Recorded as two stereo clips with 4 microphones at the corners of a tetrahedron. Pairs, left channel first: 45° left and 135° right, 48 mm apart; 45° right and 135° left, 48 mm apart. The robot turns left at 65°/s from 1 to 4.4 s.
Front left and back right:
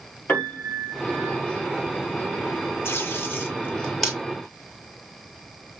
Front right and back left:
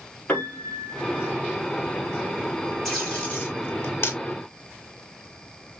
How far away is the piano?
About 2.5 m.